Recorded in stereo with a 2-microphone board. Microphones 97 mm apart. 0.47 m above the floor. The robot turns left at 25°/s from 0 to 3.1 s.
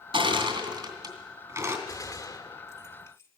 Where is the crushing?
75° right (ahead or behind), 2.5 m; by 1.8 s 35° right (ahead or behind), 2.5 m.